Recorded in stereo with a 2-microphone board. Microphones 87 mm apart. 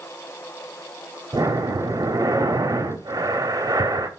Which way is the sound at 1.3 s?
45° right (ahead or behind).